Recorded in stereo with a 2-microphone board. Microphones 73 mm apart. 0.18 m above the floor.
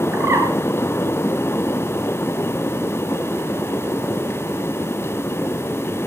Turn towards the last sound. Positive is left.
turn(degrees=-40)  # may be behind; listen again after turning